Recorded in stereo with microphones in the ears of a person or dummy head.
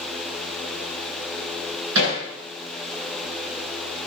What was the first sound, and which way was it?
Hammering, 65° right (ahead or behind).